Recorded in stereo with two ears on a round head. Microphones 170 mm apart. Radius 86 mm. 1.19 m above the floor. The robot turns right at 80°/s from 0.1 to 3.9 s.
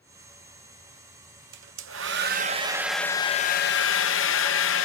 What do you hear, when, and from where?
1.5 s a hair dryer: 115° right, 0.9 m; by 4.9 s 75° left, 0.9 m